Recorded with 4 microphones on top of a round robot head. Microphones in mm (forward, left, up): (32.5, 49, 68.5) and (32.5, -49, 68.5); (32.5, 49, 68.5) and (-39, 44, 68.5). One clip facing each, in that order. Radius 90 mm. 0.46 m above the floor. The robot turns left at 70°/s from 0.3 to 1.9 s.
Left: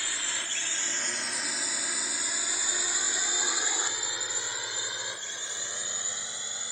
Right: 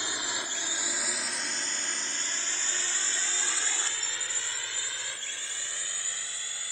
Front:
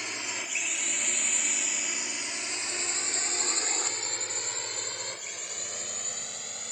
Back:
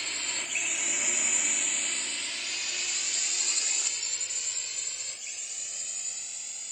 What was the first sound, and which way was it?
A drone, 50° right.